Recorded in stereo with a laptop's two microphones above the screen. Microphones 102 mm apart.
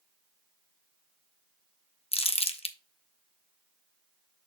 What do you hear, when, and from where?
2.1 s crumpling: 80° left, 0.8 m